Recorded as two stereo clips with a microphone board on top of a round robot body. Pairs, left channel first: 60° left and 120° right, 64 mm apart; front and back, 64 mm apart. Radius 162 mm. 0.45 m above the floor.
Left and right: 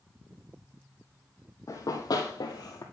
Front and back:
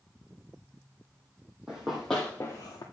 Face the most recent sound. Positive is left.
turn(degrees=25)